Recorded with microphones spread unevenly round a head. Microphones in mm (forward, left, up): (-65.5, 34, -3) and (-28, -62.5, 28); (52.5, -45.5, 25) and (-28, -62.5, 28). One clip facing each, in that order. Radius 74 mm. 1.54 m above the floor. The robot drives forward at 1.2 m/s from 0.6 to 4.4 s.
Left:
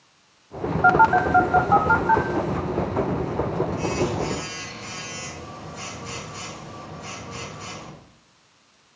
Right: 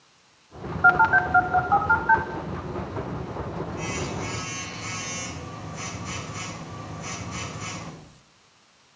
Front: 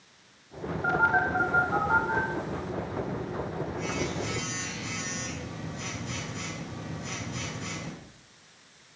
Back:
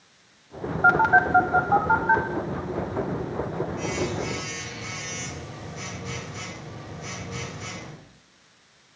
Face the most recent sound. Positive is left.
turn(degrees=180)